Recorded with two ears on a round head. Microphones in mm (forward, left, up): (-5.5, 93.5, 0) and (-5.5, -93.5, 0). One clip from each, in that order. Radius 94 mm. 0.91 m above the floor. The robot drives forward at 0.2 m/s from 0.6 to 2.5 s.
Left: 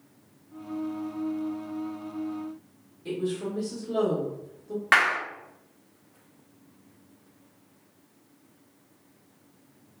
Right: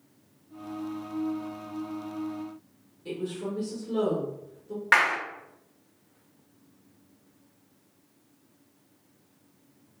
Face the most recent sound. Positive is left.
turn(degrees=10)  # may be behind; listen again after turning